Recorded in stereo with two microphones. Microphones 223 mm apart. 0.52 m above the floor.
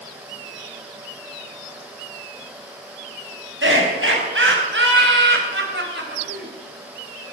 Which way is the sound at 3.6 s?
60° right (ahead or behind).